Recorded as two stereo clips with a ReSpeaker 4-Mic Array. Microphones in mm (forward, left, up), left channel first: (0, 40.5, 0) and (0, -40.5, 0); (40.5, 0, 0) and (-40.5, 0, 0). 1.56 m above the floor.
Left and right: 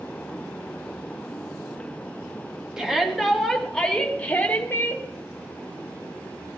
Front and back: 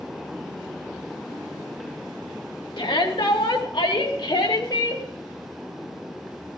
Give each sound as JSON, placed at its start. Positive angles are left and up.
{"t": 2.8, "sound": "a shout", "azimuth_deg": -5, "distance_m": 3.0}